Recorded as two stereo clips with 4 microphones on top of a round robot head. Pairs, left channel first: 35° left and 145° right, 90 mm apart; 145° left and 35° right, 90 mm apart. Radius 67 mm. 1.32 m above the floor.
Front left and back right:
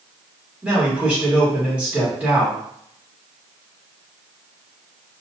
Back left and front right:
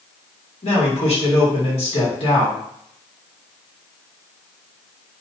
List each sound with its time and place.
0.6 s a man speaking: 140° left, 1.8 m